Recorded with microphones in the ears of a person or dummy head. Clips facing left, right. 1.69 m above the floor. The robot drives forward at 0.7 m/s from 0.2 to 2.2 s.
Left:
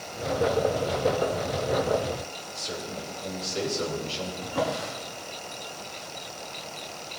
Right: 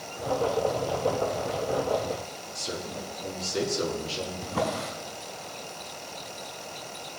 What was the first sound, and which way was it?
A man speaking, 75° right (ahead or behind).